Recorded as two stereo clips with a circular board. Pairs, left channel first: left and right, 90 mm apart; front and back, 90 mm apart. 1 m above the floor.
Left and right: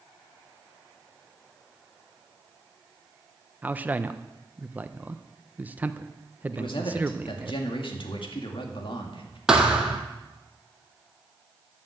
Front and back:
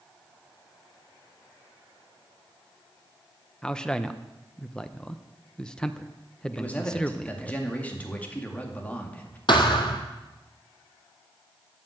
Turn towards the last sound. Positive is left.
turn(degrees=-10)